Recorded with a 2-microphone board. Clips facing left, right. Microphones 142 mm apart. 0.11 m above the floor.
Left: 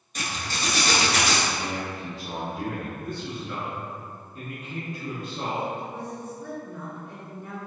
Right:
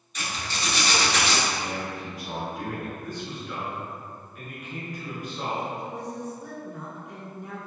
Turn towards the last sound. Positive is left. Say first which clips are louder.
# right 1 dB
turn(degrees=-15)  # may be behind; listen again after turning